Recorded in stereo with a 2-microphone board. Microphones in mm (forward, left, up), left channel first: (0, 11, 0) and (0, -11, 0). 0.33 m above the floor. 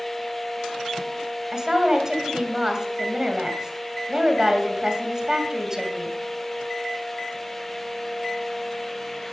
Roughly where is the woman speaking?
Right.